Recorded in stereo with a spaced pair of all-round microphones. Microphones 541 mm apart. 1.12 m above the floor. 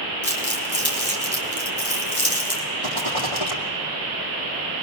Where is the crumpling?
45° left (ahead or behind), 4 m.